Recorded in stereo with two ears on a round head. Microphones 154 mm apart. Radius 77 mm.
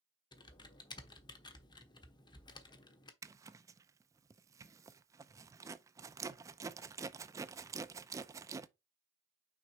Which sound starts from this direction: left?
Typing on a keyboard, at 0.3 s.